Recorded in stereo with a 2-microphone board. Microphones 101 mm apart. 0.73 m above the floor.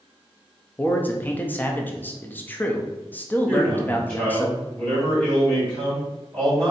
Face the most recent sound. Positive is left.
turn(degrees=20)  # may be behind; listen again after turning